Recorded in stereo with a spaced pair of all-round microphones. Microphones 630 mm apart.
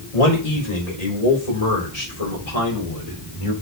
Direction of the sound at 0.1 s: 80° left.